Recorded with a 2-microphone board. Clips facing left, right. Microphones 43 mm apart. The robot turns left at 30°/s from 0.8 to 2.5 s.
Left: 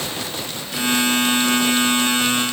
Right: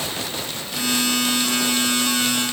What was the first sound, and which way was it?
Only background noise.